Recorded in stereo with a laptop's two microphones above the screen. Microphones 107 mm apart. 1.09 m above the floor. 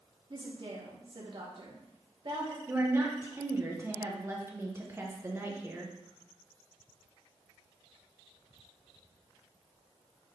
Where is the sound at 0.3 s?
50° right (ahead or behind), 1.1 m.